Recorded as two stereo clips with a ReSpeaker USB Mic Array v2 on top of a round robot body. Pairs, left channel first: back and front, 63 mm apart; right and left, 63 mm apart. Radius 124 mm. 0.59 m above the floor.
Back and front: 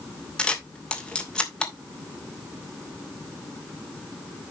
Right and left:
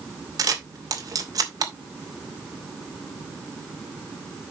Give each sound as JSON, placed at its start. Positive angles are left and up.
{"t": 0.4, "sound": "a camera shutter", "azimuth_deg": 105, "distance_m": 3.0}